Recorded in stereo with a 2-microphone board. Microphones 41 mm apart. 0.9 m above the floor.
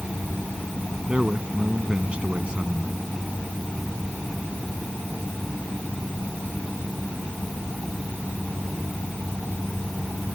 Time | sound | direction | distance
1.1 | a man speaking | 25° right (ahead or behind) | ?